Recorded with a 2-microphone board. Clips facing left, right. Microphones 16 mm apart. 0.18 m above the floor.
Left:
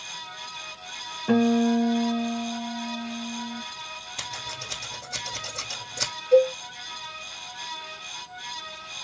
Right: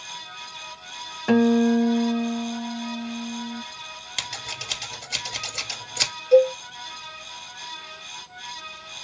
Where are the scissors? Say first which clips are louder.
Right 4 dB; 70° right (ahead or behind), 1.8 m.